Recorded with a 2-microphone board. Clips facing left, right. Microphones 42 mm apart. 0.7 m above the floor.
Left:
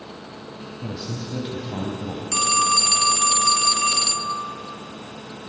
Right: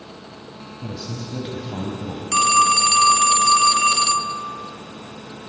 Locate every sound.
0.8 s a man speaking: 5° left (ahead or behind), 3.5 m
2.3 s a phone ringing: 30° right (ahead or behind), 0.8 m